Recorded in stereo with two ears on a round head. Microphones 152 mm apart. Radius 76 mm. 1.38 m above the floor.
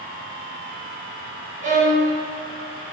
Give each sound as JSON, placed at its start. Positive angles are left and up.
{"t": 1.6, "sound": "a violin", "side_deg": -50, "distance_m": 4.5}